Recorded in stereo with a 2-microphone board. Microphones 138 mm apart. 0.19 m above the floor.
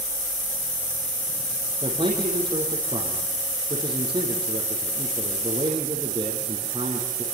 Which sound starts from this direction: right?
A man speaking, at 1.8 s.